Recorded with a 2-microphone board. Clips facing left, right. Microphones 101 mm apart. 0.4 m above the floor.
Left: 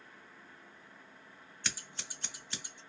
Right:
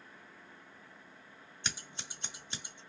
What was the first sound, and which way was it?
Scissors, 20° right (ahead or behind).